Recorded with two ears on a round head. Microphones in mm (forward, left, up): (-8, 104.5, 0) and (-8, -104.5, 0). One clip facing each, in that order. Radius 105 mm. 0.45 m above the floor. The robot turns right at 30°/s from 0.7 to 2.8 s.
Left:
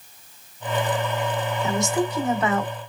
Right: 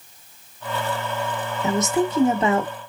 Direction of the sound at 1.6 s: 20° right (ahead or behind).